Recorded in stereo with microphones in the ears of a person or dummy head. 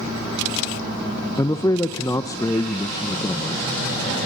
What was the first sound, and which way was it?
A man speaking, 10° left (ahead or behind).